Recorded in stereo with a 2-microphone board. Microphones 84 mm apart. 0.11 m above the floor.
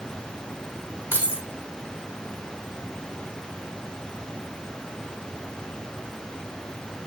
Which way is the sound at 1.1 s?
25° right (ahead or behind).